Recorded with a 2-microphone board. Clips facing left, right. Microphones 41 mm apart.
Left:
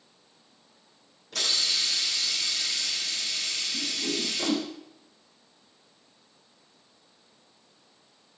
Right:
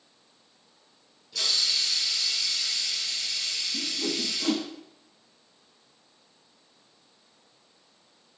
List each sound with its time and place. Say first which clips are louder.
1.3 s a hiss: even; 65° left (ahead or behind), 4 m
3.7 s a whoosh: right 1 dB; 35° right (ahead or behind), 2.5 m